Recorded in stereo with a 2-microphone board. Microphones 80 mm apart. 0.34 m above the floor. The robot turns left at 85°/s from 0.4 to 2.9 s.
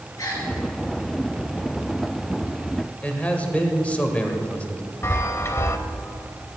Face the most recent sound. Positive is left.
turn(degrees=30)  # may be behind; listen again after turning